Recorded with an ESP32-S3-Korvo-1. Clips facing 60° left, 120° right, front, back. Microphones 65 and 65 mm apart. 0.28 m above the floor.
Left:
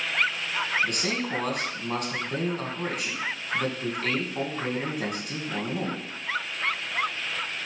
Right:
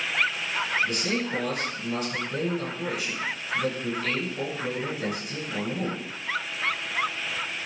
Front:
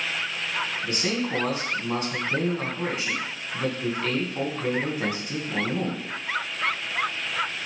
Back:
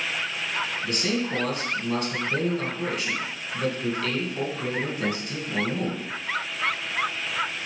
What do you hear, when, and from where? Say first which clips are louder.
0.8 s a man speaking: right 1 dB, back 1 dB; 60° left, 2 m